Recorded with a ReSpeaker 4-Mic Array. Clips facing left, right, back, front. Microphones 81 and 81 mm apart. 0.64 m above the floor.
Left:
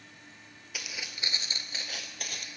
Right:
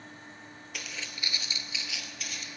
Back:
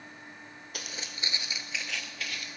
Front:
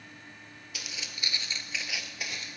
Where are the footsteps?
175° left, 0.9 m; by 2.5 s 60° left, 1.1 m.